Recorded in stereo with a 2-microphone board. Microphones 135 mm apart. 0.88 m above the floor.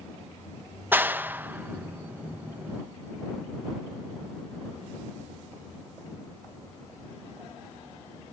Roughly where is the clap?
Centre.